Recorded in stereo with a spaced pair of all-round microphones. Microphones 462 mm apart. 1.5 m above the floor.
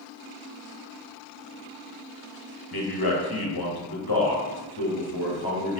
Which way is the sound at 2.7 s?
50° left (ahead or behind).